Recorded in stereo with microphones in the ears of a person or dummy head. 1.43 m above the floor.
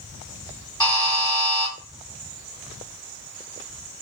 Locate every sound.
0.8 s a buzzer: 20° left (ahead or behind), 1.1 m